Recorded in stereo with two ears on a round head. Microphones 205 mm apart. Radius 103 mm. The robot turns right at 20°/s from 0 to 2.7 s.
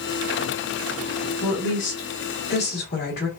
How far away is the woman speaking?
About 1.7 m.